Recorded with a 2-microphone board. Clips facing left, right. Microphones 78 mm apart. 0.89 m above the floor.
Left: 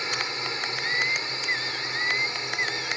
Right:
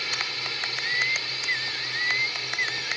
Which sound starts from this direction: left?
A drone, at 0.0 s.